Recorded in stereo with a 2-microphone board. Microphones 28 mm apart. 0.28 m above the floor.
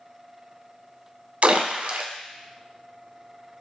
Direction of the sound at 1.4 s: 65° right (ahead or behind).